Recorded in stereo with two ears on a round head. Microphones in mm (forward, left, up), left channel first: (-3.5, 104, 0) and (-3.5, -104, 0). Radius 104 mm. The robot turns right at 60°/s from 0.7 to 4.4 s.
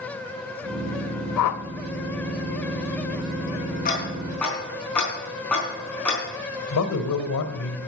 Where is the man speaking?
65° left (ahead or behind), 1.7 m.